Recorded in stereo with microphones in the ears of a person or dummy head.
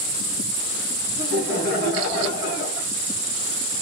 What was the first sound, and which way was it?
Laughter, 60° left (ahead or behind).